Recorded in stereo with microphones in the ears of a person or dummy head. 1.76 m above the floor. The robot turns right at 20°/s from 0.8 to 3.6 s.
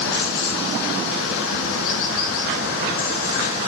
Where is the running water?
70° left, 1.4 m; by 3.7 s 130° left, 1.4 m.